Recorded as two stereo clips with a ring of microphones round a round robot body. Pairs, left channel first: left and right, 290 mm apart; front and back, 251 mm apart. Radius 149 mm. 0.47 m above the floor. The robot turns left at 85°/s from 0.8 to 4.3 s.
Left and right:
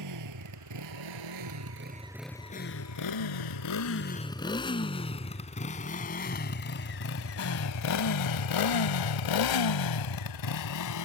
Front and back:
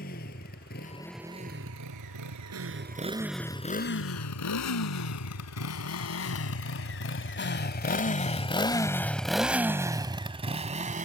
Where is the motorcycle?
60° right; by 11.1 s 120° left.